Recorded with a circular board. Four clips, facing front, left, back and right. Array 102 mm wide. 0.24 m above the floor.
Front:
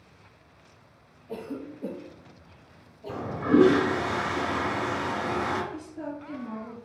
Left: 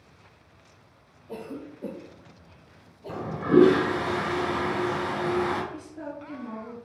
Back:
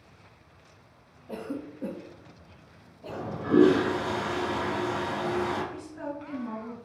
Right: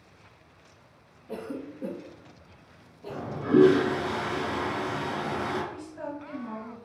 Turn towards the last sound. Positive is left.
turn(degrees=-150)